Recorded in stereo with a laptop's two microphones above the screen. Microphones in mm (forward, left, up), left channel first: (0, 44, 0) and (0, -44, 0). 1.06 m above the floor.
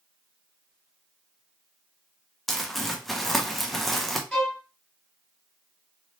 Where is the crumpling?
Centre (ahead or behind), 0.6 m.